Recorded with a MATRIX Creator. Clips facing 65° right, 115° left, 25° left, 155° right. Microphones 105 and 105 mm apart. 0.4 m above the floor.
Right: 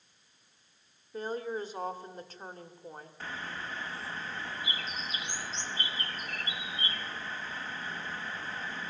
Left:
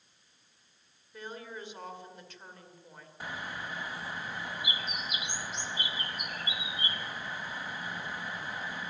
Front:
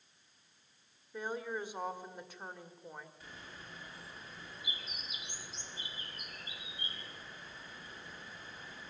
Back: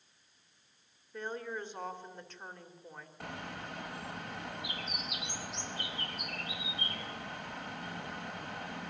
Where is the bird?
170° right, 1.1 m.